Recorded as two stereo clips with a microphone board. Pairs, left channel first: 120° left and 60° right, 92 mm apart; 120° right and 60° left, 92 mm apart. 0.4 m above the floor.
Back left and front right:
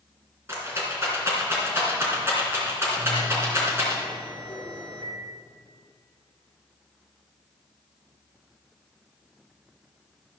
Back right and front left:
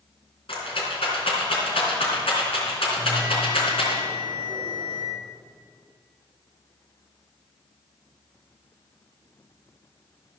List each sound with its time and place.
0.5 s a rattle: 120° right, 3.5 m
3.0 s a bell: 110° right, 4.5 m